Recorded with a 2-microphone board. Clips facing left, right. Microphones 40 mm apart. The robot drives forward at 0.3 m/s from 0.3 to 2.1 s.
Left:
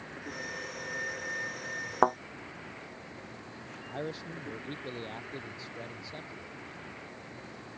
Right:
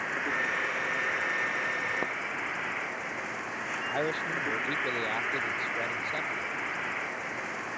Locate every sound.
0.0 s an insect: 80° right; by 7.8 s 75° right (ahead or behind)
2.0 s a thud: 85° left
3.9 s a man speaking: 45° right (ahead or behind)